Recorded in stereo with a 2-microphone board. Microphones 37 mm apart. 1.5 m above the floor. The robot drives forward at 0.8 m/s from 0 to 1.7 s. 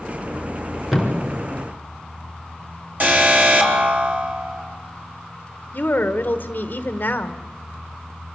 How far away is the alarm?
About 4 m.